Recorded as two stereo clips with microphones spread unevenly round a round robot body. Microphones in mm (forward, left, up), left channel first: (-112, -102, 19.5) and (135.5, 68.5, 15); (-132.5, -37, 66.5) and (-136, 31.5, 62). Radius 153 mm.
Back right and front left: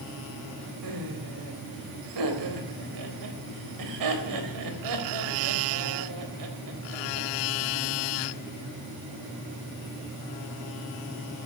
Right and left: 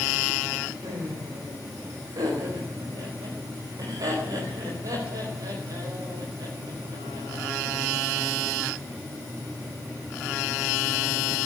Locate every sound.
0.8 s laughter: 50° left, 4 m